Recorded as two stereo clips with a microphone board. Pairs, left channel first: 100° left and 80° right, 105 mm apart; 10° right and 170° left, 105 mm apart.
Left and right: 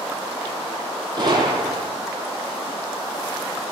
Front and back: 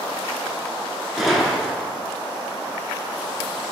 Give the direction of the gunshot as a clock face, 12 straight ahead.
3 o'clock.